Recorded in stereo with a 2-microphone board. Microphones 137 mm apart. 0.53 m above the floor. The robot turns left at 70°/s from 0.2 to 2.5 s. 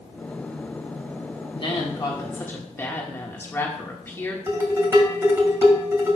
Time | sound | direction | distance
1.6 | a woman speaking | 95° left | 1.4 m
4.5 | dishes clattering | 20° right (ahead or behind) | 2 m